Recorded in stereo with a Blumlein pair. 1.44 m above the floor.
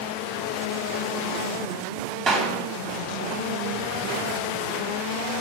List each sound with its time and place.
2.3 s a clap: 25° right, 1.9 m